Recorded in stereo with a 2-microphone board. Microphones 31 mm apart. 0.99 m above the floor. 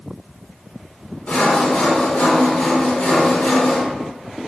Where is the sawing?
55° left (ahead or behind), 1.0 m.